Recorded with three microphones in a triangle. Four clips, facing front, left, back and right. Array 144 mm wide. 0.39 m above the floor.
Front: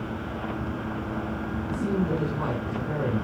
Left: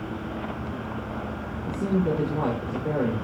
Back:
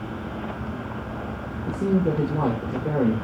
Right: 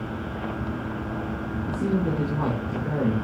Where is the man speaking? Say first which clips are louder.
Left 1 dB, back 5 dB; 175° left, 8 m.